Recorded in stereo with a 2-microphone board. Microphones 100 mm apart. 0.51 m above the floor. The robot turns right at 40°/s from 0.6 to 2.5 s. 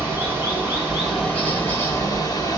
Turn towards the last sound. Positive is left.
turn(degrees=55)